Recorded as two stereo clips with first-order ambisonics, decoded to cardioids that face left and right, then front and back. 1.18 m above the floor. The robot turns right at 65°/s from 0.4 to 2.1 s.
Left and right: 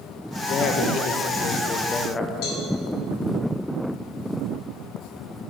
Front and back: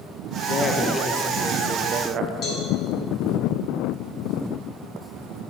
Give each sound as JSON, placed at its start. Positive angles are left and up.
{"t": 0.5, "sound": "a woman speaking", "azimuth_deg": 55, "distance_m": 0.6}
{"t": 2.4, "sound": "a cowbell", "azimuth_deg": 55, "distance_m": 2.0}